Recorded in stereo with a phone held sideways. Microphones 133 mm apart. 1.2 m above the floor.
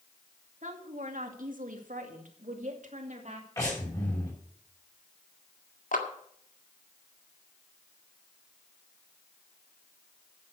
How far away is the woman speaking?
About 2 m.